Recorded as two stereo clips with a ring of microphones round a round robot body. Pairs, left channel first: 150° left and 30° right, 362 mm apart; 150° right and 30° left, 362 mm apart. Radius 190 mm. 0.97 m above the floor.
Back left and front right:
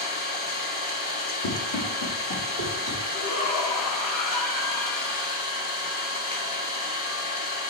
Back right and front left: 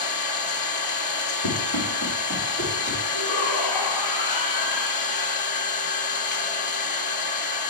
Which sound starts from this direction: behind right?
An engine running, at 0.0 s.